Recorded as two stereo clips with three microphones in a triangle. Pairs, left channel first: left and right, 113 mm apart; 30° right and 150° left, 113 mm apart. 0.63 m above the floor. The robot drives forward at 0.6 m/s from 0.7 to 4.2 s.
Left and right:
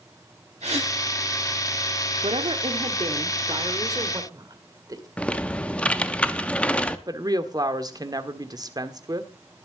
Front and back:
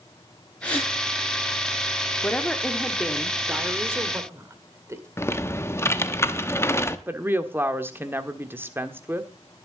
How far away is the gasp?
About 7 m.